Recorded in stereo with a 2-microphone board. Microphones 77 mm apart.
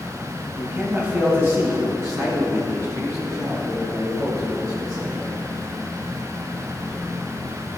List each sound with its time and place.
0.6 s a man speaking: 15° right (ahead or behind), 3 m; by 5.3 s 50° right (ahead or behind), 7.5 m